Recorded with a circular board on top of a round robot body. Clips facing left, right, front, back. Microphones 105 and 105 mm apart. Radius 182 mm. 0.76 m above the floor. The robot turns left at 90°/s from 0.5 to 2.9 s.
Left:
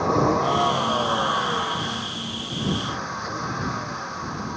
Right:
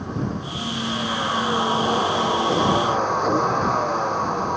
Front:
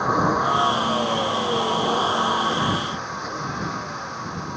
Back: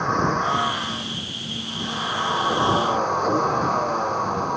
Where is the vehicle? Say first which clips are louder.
Left 8 dB, front 2 dB; 80° left; by 4.6 s 135° right.